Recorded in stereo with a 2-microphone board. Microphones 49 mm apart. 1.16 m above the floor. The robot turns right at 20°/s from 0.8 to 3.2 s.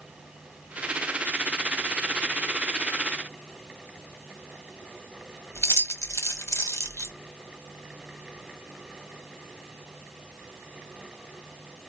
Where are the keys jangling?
75° left (ahead or behind), 0.8 m.